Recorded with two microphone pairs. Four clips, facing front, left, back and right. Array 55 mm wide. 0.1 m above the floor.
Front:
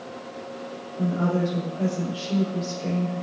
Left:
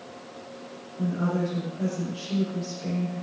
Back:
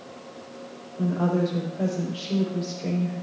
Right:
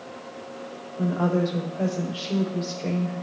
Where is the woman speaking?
95° right, 5 m.